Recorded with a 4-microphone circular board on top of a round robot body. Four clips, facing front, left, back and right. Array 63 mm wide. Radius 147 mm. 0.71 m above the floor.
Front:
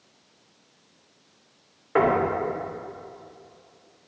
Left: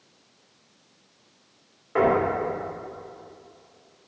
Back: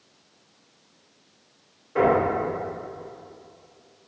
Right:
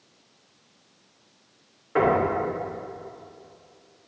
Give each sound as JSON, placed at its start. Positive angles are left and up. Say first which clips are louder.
{"t": 1.9, "sound": "knocking", "louder": "even, back 1 dB", "azimuth_deg": 0, "distance_m": 2.0}